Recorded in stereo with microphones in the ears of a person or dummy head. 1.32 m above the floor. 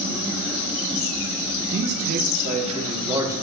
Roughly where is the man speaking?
Right.